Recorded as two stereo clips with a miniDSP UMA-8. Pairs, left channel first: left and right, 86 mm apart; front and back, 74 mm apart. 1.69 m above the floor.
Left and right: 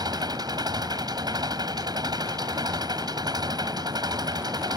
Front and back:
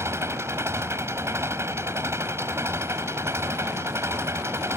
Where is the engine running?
130° right.